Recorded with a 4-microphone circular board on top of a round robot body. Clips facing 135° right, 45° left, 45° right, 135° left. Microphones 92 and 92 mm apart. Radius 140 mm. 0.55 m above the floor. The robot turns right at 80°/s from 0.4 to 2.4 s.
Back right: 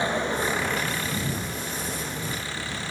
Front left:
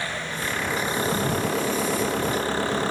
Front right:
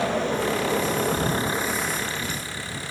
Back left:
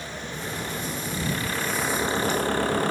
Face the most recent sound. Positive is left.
turn(degrees=95)